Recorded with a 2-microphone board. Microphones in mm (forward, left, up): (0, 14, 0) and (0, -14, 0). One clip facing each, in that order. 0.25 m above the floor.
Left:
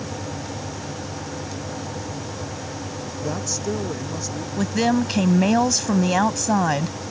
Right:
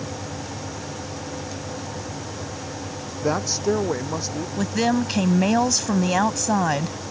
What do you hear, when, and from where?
3.2 s a woman speaking: 40° right (ahead or behind); by 4.5 s 35° right (ahead or behind)
4.6 s a woman speaking: centre (ahead or behind)